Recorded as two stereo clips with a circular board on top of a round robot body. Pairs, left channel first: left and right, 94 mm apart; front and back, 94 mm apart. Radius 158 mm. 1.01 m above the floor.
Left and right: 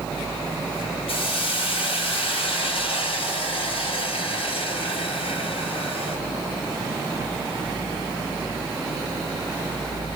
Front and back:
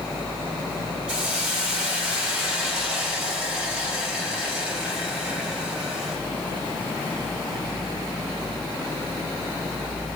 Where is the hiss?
100° left, 5.5 m.